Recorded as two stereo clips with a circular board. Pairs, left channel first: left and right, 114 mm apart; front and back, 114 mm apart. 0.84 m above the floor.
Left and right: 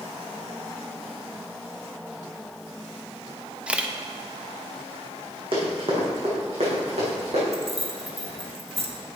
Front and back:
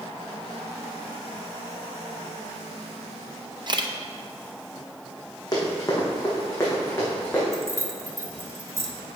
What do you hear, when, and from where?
3.7 s a camera shutter: 165° right, 0.7 m
5.5 s running footsteps: 55° right, 3.5 m; by 7.4 s 75° right, 4.5 m
7.5 s keys jangling: 115° right, 1.1 m